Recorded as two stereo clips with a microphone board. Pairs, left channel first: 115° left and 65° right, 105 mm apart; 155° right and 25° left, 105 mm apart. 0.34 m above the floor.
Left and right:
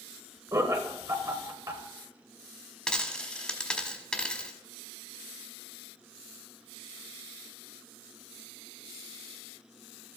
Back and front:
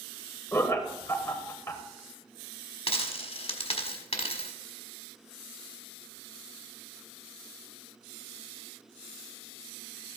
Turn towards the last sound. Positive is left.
turn(degrees=-165)